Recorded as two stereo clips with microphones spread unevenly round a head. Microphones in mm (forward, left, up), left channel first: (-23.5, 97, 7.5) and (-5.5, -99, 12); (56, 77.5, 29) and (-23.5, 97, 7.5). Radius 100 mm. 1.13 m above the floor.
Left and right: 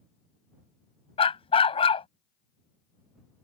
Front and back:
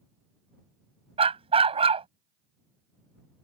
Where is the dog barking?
160° left.